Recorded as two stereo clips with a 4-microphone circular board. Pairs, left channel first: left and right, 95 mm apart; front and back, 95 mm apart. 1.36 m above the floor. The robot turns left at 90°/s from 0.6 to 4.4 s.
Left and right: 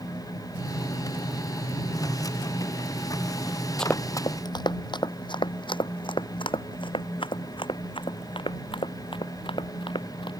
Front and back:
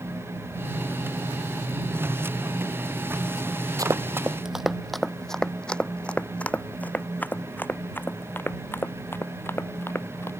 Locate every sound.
3.8 s running footsteps: 170° left; by 10.3 s 65° left